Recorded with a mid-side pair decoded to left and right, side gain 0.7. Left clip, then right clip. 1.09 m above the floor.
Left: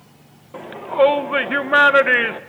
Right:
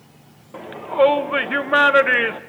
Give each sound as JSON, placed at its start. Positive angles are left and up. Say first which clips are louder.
{"t": 0.5, "sound": "a shout", "louder": "left 1 dB", "azimuth_deg": 5, "distance_m": 0.6}